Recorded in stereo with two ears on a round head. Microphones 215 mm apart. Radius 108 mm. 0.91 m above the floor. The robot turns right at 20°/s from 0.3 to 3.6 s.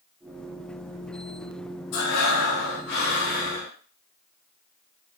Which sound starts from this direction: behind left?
Breathing, at 1.9 s.